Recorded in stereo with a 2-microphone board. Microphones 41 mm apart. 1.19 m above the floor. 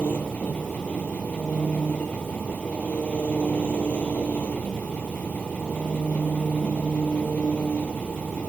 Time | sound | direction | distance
0.0 | an engine running | 40° left (ahead or behind) | ?